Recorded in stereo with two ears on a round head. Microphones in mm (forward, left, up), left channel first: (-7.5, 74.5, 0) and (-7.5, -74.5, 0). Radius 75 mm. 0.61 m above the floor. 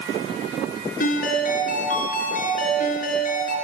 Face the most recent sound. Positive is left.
turn(degrees=50)  # may be behind; listen again after turning